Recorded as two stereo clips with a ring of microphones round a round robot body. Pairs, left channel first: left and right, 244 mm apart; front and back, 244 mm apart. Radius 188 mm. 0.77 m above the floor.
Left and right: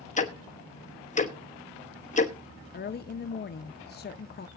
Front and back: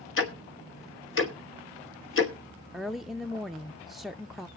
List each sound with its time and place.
0.2 s ticking: 30° left, 1.4 m
2.7 s a woman speaking: 90° left, 0.5 m